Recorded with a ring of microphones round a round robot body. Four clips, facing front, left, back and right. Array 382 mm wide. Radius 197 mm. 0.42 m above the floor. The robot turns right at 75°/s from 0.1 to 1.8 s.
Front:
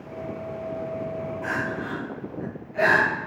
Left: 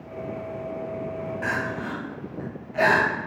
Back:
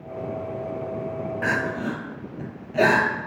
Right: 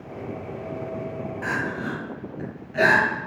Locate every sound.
1.4 s crying: 175° left, 1.6 m; by 3.1 s 155° right, 1.6 m